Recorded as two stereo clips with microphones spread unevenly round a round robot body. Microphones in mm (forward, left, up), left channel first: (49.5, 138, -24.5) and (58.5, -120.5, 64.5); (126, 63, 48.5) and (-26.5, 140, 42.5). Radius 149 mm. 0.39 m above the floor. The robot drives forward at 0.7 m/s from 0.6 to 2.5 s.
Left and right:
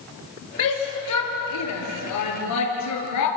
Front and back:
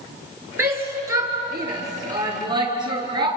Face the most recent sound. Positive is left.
turn(degrees=90)